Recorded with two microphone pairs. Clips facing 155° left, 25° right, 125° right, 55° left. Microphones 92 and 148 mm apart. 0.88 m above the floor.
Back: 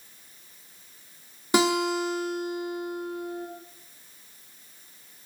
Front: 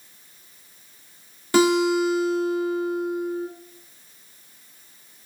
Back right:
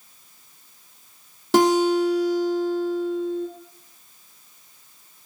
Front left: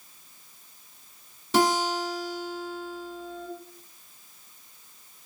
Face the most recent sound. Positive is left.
turn(degrees=-135)